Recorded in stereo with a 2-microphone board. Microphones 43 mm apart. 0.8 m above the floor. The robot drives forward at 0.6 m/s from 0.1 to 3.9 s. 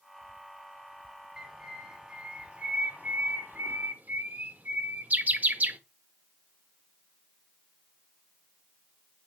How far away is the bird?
About 1.3 m.